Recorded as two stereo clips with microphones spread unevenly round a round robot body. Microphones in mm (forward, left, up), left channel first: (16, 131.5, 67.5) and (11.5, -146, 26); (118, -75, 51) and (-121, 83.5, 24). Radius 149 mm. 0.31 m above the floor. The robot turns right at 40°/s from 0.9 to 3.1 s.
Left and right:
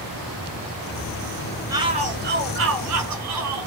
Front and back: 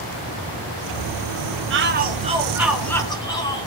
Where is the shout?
165° right, 4.5 m; by 3.7 s 110° right, 4.5 m.